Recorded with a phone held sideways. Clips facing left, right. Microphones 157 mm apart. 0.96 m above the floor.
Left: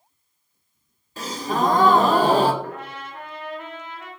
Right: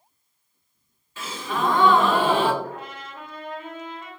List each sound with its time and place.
1.2 s a gasp: 40° left (ahead or behind), 0.8 m
2.6 s a trumpet: 70° left (ahead or behind), 1.9 m